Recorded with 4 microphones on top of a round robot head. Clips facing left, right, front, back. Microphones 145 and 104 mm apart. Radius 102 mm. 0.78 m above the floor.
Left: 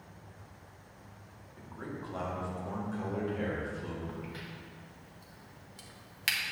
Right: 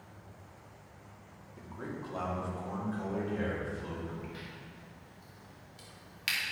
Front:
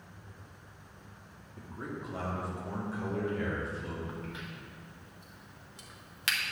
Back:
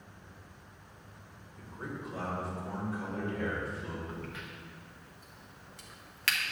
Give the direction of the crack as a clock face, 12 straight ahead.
10 o'clock.